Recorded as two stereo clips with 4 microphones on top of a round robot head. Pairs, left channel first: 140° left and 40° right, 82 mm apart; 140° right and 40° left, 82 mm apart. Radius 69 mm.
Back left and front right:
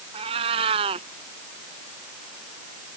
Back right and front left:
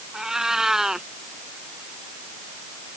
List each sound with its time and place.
0.1 s a cat meowing: 45° right